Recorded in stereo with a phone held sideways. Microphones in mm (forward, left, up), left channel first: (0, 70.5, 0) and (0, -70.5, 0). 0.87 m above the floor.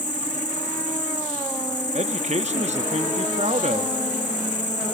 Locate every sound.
0.0 s an insect: 60° left (ahead or behind), 3.5 m
1.9 s a man speaking: 55° right (ahead or behind), 1.4 m